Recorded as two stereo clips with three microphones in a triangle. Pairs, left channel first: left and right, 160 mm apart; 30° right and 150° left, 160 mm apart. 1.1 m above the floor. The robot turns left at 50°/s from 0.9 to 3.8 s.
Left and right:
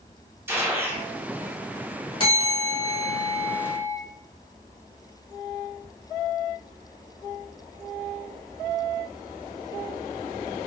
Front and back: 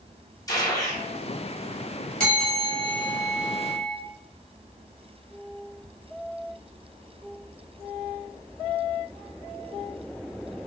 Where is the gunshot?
35° right, 0.7 m; by 1.0 s 45° right, 0.7 m.